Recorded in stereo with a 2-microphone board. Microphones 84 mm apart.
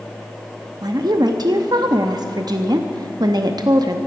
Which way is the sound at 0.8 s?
55° right (ahead or behind).